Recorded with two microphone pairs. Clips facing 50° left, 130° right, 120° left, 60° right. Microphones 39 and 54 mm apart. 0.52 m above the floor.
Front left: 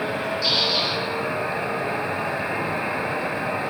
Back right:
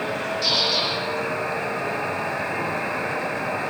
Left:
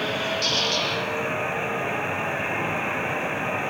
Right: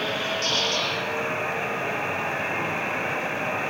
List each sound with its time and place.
0.4 s a squeak: 120° right, 5.5 m